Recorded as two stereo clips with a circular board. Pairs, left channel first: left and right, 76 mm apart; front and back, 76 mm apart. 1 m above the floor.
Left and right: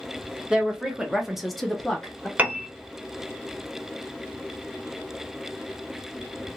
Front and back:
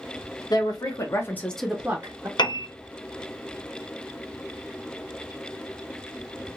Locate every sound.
0.5 s a woman speaking: 10° right, 1.2 m; by 2.3 s 165° left, 0.8 m
2.4 s a piano: 20° right, 0.5 m